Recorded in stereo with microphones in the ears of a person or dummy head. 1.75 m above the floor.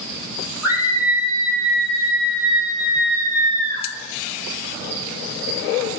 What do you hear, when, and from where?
0.6 s a scream: 10° right (ahead or behind), 5.5 m; by 3.9 s 20° right (ahead or behind), 3 m